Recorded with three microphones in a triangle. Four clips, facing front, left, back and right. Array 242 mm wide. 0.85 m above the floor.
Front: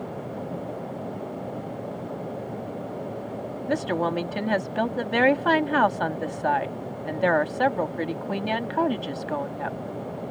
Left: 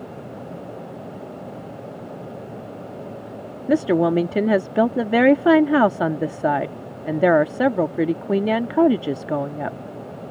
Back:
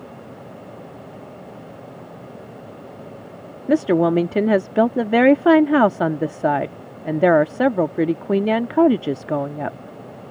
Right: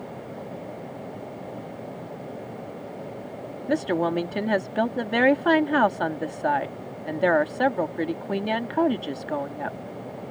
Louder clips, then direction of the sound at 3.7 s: Left 6 dB, back 9 dB; 150° left.